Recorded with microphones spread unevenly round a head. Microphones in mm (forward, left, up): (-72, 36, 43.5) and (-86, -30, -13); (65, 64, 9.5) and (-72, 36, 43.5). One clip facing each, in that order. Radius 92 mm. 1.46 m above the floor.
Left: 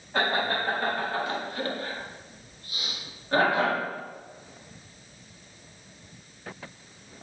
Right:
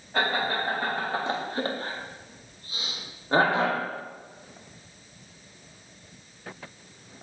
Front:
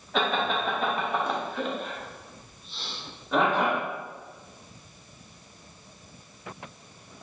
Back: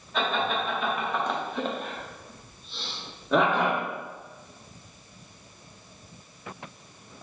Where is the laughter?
20° right, 0.9 m; by 3.8 s 155° right, 1.6 m.